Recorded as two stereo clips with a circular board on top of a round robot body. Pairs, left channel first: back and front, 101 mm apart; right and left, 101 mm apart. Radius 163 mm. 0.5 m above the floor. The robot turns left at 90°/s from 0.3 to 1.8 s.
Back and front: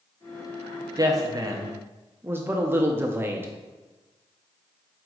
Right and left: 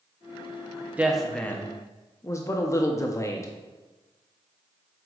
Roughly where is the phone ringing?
No phone ringing in this recording.